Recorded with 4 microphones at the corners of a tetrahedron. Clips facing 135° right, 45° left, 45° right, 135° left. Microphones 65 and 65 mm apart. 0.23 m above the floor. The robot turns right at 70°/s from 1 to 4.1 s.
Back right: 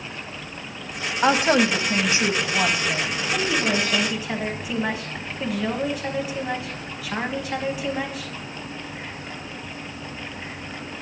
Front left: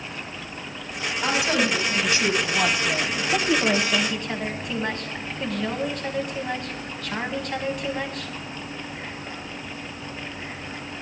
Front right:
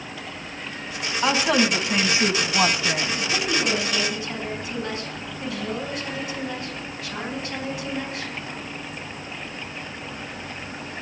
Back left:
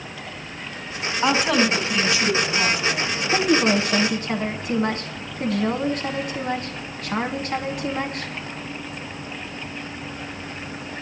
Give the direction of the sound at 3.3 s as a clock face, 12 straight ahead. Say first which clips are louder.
Front left 2 dB, back left 8 dB; 9 o'clock.